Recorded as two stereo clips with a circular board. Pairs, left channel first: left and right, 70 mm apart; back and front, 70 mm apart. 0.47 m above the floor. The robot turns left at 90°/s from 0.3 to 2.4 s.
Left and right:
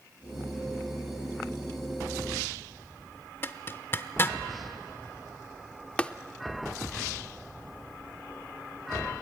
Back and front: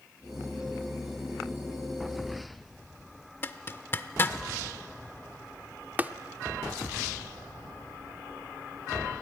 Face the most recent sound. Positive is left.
turn(degrees=35)